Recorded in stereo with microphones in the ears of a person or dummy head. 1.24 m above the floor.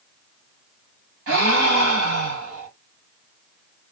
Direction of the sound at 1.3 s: 80° right.